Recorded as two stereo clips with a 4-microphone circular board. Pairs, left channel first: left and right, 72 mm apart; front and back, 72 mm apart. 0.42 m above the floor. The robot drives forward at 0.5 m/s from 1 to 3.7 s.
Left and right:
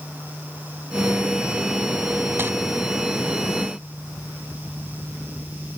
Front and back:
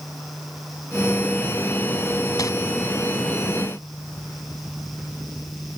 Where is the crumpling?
30° right; by 2.5 s 35° right.